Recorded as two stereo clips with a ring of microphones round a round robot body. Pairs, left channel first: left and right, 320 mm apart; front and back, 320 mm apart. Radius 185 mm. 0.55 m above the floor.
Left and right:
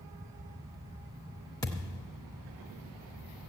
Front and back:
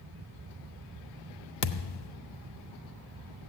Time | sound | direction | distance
1.6 | a thud | 10° left | 0.6 m